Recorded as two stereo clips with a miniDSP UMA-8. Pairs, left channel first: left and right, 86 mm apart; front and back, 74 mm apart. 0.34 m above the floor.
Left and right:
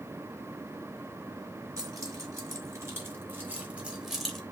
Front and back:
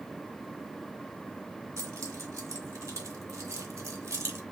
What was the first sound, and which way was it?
Keys jangling, 135° right.